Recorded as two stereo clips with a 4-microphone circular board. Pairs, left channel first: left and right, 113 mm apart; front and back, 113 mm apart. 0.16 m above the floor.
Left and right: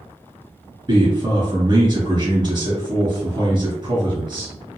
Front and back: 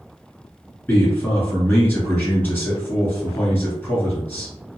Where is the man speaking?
70° right, 1.5 m.